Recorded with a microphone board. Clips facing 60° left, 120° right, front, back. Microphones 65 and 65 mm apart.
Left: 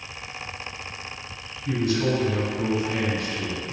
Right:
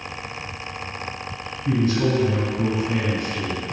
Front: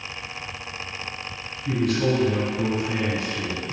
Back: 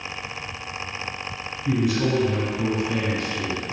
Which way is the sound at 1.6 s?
110° right.